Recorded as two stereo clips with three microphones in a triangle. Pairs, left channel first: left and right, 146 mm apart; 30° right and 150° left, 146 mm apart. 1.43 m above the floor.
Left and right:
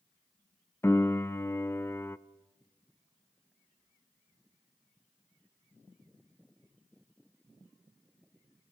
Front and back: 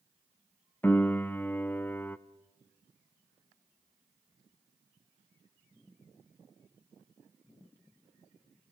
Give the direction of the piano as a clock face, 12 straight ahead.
11 o'clock.